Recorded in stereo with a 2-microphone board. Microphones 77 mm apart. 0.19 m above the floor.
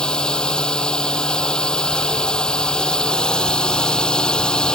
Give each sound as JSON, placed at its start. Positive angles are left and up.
{"t": 0.0, "sound": "a drone", "side_deg": 10}